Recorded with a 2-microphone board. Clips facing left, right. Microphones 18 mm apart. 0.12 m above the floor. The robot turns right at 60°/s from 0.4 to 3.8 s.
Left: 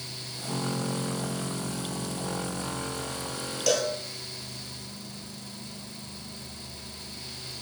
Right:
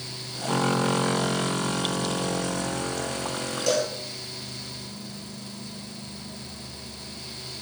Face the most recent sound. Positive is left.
turn(degrees=20)  # may be behind; listen again after turning